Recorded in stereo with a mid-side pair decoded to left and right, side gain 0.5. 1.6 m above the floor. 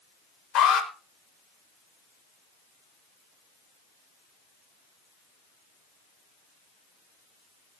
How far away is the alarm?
About 6 m.